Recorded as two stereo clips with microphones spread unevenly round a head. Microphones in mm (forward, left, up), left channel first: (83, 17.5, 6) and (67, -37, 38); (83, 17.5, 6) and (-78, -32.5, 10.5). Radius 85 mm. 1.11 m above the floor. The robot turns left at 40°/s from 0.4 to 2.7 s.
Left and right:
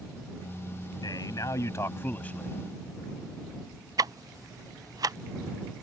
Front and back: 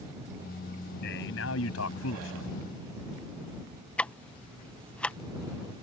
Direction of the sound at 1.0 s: 55° left.